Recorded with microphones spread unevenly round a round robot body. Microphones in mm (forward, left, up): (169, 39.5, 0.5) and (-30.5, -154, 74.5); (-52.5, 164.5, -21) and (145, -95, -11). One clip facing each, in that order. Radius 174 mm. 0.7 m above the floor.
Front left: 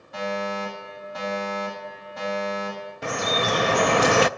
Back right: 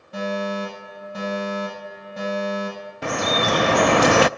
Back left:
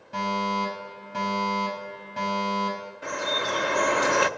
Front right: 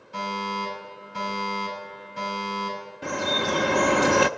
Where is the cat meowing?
No cat meowing in this recording.